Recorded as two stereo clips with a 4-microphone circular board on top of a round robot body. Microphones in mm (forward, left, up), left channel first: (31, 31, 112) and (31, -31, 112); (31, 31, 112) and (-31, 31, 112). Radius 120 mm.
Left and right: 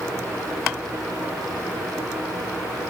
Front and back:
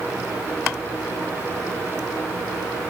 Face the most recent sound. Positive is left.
No sound to turn to.